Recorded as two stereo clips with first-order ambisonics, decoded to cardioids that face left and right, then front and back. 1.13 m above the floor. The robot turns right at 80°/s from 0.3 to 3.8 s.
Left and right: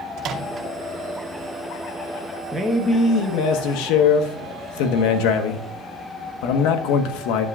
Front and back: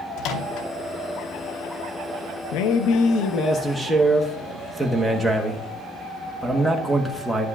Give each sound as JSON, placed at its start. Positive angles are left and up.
{"t": 0.2, "sound": "a microwave", "azimuth_deg": -35, "distance_m": 0.9}
{"t": 2.5, "sound": "a man speaking", "azimuth_deg": -15, "distance_m": 1.1}